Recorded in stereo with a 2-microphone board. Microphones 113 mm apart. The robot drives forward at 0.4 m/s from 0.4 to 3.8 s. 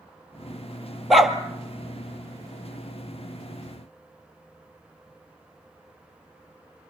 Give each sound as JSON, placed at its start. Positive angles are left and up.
{"t": 1.1, "sound": "a dog barking", "side_deg": 0, "distance_m": 1.9}